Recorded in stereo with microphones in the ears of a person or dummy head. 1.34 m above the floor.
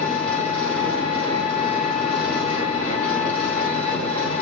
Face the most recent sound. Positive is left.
turn(degrees=10)  # may be behind; listen again after turning